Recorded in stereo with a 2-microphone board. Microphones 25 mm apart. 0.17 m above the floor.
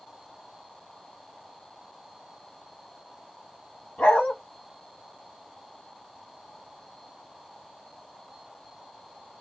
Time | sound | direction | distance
4.0 | a dog barking | 65° left (ahead or behind) | 1.5 m